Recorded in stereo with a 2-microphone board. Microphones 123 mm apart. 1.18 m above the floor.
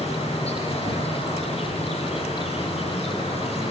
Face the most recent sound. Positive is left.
turn(degrees=55)  # may be behind; listen again after turning